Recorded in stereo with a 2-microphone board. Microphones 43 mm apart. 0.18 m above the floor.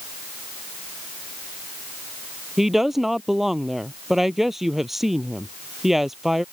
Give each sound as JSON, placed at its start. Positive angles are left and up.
{"t": 2.6, "sound": "a woman speaking", "side_deg": -5}